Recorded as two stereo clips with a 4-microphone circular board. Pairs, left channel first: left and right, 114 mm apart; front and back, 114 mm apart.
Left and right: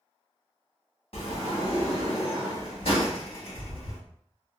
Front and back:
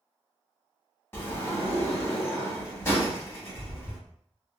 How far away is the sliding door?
About 1.1 m.